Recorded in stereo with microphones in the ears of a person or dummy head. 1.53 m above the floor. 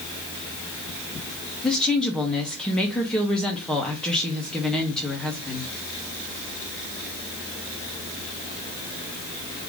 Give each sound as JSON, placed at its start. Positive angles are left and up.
{"t": 1.6, "sound": "a woman speaking", "side_deg": 5, "distance_m": 1.2}